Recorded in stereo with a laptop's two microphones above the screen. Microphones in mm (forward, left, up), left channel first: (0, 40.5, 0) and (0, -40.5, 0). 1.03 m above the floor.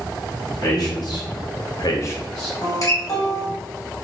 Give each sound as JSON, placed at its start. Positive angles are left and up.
{"t": 0.6, "sound": "a man speaking", "side_deg": 50, "distance_m": 1.7}
{"t": 2.6, "sound": "a guitar", "side_deg": 40, "distance_m": 1.3}